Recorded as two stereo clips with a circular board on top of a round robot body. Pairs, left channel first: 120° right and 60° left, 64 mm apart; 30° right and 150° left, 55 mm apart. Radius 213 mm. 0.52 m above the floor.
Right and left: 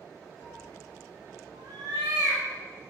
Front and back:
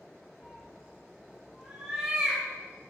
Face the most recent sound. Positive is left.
turn(degrees=80)